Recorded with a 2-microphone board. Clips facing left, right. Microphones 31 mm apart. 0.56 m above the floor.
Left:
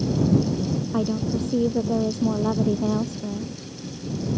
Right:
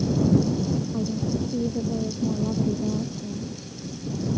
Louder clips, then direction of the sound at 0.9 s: Left 2 dB; 85° left.